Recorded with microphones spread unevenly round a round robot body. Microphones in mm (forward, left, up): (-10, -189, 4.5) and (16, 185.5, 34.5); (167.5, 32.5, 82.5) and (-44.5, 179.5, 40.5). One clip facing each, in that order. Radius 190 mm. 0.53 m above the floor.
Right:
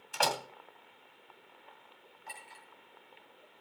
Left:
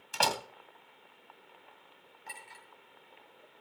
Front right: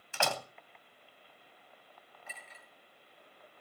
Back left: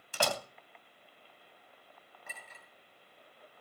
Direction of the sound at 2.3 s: 105° left.